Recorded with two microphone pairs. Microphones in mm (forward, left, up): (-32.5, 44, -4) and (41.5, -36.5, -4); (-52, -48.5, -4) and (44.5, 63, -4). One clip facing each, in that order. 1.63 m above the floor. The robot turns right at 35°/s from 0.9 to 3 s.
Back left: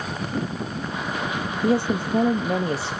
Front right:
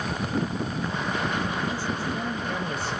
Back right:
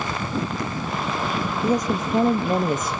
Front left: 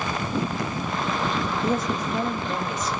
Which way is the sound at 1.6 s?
150° left.